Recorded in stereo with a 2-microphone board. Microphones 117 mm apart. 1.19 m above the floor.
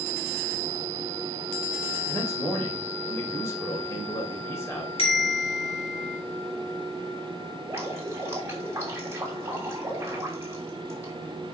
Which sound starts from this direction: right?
Dripping, at 7.7 s.